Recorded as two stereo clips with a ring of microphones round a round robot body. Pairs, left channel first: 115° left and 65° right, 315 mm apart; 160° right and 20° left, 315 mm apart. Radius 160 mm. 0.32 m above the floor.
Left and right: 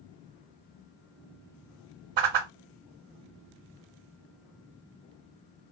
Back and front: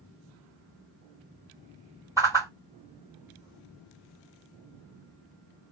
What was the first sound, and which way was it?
A whoosh, 60° right.